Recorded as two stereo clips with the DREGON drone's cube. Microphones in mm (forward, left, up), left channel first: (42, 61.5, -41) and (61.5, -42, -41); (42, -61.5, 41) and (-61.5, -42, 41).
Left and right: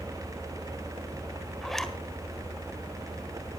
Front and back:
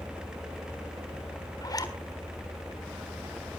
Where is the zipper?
15° left, 1.5 m.